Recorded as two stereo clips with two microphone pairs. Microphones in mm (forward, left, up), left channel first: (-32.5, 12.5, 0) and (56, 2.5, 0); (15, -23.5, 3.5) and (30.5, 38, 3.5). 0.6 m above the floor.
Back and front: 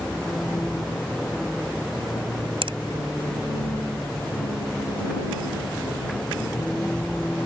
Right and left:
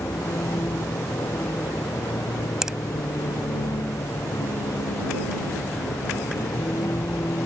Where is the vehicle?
100° right; by 7.5 s 105° right.